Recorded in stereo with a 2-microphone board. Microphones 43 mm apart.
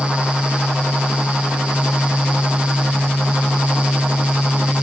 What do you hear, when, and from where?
Only background noise.